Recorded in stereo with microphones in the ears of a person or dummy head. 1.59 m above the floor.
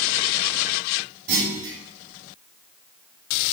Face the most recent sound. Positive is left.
turn(degrees=-80)